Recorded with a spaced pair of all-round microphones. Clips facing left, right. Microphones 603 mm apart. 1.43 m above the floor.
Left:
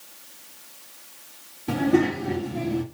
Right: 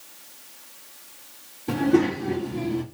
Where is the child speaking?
5° left (ahead or behind), 3 m; by 2.8 s 10° left (ahead or behind), 2 m.